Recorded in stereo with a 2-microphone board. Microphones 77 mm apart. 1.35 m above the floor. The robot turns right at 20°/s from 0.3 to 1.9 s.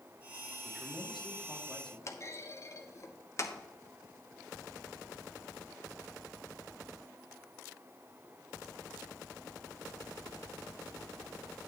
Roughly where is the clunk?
Left.